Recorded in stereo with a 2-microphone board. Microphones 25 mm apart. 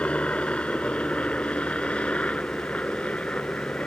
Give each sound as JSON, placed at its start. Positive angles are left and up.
{"t": 0.0, "sound": "a helicopter", "side_deg": 50}